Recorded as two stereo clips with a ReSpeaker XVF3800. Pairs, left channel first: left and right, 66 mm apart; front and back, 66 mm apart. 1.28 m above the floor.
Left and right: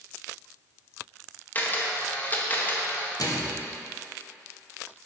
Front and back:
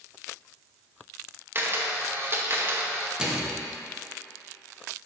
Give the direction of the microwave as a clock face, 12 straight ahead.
9 o'clock.